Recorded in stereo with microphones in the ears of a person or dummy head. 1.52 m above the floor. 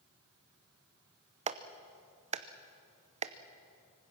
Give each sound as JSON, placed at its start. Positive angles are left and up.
{"t": 1.5, "sound": "a clap", "side_deg": -30, "distance_m": 0.9}